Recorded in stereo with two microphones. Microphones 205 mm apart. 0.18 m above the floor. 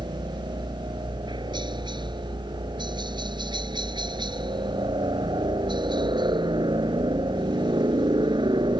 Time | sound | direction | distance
0.0 | a helicopter | 20° right (ahead or behind) | ?